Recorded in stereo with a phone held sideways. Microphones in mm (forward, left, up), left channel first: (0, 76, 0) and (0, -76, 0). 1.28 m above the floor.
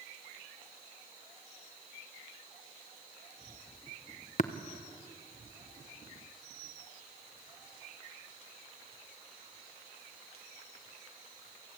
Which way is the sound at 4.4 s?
55° left (ahead or behind).